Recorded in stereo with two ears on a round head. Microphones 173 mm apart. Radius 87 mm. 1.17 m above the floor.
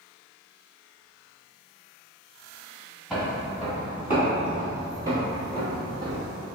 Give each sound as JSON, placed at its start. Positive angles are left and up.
{"t": 3.1, "sound": "footsteps", "side_deg": 0, "distance_m": 1.4}